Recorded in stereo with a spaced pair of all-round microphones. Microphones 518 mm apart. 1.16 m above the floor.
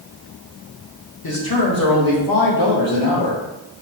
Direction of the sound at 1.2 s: 50° left (ahead or behind).